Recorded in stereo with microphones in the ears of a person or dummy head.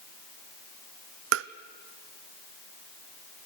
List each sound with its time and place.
1.3 s tapping: 60° right (ahead or behind), 0.6 m